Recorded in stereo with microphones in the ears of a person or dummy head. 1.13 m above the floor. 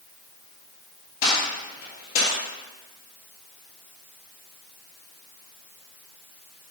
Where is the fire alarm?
No fire alarm in this recording.